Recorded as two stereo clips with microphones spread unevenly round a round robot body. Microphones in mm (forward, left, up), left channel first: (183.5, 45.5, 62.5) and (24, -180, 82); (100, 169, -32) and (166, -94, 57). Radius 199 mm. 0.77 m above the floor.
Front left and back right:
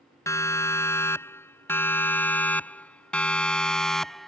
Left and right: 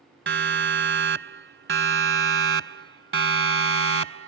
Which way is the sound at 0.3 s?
25° right.